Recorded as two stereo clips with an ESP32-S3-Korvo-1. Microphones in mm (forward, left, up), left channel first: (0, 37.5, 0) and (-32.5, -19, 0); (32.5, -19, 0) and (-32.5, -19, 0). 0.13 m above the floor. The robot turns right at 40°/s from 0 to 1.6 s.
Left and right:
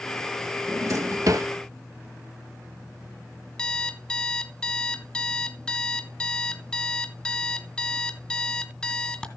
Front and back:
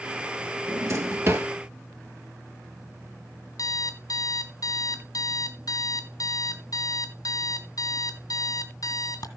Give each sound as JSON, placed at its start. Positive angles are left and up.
{"t": 0.7, "sound": "a drawer", "azimuth_deg": -160, "distance_m": 1.2}
{"t": 3.6, "sound": "an alarm clock", "azimuth_deg": -15, "distance_m": 2.0}